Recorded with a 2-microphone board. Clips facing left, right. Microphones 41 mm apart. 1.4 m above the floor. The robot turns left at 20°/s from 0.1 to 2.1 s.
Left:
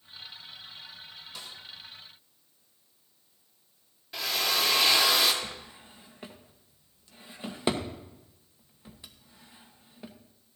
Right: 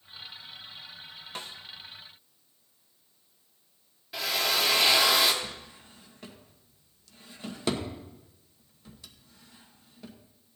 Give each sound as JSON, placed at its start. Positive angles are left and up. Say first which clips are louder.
{"t": 1.4, "sound": "a snare drum", "louder": "right 5 dB", "side_deg": -45, "distance_m": 0.9}
{"t": 4.1, "sound": "a drill", "louder": "right 1 dB", "side_deg": -5, "distance_m": 1.5}
{"t": 5.4, "sound": "a drawer", "louder": "even", "side_deg": 20, "distance_m": 1.0}